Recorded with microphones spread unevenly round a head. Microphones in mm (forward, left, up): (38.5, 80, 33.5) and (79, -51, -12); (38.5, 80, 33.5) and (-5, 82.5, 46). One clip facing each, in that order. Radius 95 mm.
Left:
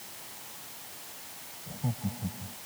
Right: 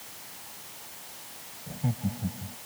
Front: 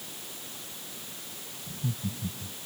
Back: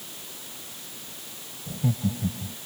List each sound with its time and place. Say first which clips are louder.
1.7 s laughter: right 3 dB, back 8 dB; 155° right